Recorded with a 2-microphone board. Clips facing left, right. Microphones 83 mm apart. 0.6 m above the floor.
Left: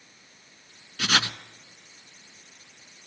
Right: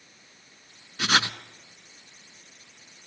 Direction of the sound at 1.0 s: 20° right (ahead or behind).